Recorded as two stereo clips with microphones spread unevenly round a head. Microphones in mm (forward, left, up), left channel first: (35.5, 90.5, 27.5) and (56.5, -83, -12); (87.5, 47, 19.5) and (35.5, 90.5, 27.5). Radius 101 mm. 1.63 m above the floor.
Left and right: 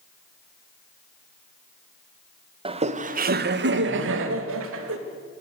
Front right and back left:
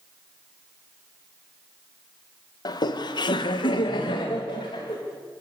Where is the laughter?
20° right, 1.6 m; by 5.0 s 90° right, 2.5 m.